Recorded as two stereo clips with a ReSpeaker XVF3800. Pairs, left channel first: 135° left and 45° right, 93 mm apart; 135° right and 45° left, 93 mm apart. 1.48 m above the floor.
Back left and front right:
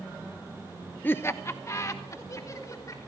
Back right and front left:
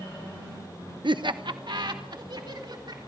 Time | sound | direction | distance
1.0 | laughter | 65° left | 0.7 m